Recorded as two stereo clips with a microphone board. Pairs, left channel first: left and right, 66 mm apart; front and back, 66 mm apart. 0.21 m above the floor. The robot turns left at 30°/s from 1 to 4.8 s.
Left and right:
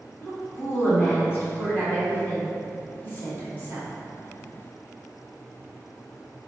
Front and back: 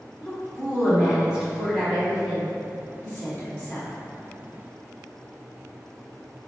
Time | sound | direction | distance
0.2 | a woman speaking | 130° left | 1.8 m